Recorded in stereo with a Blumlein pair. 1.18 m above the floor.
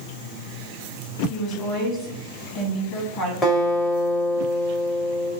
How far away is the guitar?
About 1.6 m.